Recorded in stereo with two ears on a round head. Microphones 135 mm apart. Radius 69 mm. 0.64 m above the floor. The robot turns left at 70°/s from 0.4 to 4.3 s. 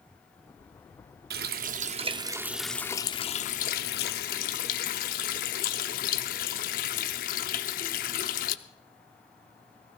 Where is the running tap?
85° right, 0.7 m; by 8.6 s 65° left, 0.7 m.